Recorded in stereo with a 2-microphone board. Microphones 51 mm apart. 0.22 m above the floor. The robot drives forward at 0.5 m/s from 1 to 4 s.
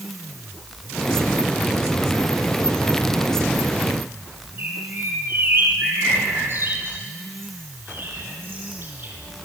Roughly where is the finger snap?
No finger snap in this recording.